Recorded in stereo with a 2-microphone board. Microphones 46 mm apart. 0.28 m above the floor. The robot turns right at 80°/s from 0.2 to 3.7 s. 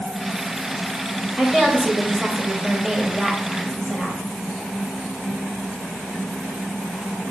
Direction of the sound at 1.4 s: 10° right (ahead or behind).